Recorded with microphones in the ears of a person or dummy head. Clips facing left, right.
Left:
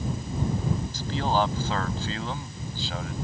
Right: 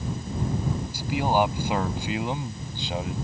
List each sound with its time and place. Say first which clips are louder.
0.9 s a man speaking: right 4 dB; 15° right (ahead or behind); by 3.1 s 20° right (ahead or behind)